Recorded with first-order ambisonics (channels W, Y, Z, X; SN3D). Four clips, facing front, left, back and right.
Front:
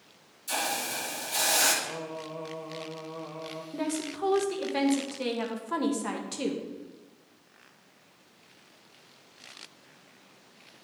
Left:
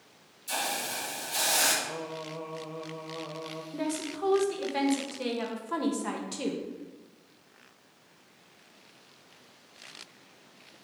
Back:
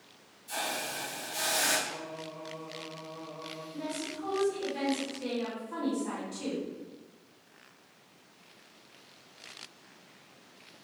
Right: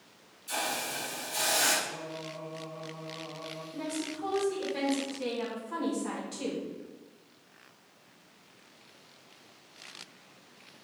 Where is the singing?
45° left, 1.2 m.